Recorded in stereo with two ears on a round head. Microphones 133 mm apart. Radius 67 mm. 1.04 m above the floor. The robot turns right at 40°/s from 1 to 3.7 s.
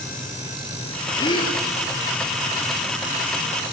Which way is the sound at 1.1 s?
25° left (ahead or behind).